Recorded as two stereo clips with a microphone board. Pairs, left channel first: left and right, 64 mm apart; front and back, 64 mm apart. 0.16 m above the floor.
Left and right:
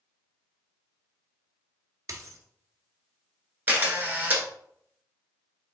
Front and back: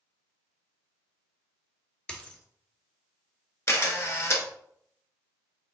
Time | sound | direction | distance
2.1 | a dropped coin | 75° right | 0.6 m
3.7 | a camera shutter | 35° right | 0.8 m